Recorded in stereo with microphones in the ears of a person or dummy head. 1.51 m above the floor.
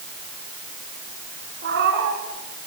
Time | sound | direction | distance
1.6 | a cat meowing | 50° right (ahead or behind) | 2.5 m